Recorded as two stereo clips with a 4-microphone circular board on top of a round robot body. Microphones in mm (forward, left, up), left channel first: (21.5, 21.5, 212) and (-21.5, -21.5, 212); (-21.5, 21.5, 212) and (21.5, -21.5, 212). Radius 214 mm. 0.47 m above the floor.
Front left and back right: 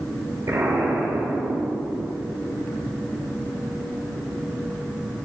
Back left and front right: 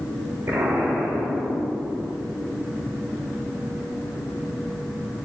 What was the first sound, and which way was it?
An explosion, 95° right.